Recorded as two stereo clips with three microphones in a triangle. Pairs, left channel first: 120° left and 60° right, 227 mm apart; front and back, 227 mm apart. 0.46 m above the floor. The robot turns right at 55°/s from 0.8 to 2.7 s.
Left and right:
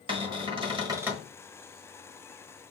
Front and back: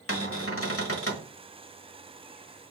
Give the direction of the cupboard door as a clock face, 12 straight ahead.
12 o'clock.